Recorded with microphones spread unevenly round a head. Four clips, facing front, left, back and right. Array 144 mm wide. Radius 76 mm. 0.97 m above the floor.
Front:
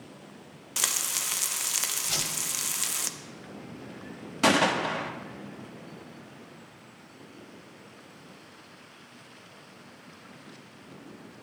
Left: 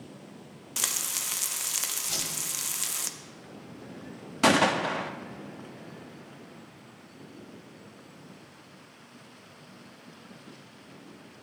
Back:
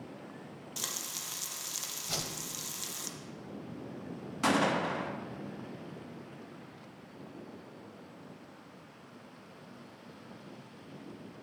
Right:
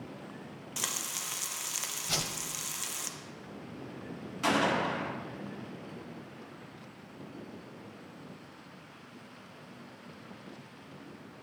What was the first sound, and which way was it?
Frying, 25° left.